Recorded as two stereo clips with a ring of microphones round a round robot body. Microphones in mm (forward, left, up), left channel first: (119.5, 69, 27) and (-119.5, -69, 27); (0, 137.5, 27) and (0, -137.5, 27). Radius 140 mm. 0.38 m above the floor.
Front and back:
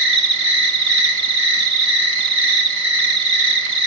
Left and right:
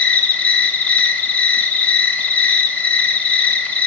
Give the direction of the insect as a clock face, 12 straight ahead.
6 o'clock.